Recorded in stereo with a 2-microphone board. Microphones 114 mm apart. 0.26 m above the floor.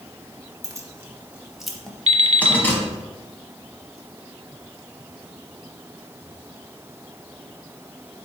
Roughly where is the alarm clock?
Right.